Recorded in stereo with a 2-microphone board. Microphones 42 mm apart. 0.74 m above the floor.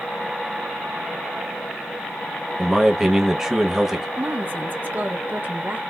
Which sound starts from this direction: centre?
A man speaking, at 2.6 s.